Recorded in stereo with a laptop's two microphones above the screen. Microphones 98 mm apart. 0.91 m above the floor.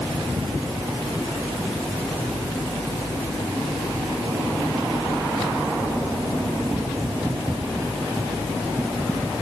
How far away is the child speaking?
No child speaking in this recording.